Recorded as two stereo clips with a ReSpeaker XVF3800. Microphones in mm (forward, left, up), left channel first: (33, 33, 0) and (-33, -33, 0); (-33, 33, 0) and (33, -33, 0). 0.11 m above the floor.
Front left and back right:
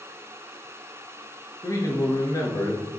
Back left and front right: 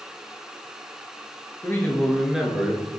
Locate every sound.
1.6 s a man speaking: 85° left, 1.4 m; by 2.8 s 5° left, 1.3 m